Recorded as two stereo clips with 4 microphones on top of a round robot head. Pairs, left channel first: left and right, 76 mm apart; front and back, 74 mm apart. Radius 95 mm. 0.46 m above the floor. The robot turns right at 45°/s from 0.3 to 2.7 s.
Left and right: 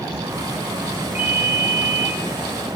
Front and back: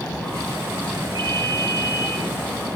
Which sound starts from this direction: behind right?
A ringtone, at 1.1 s.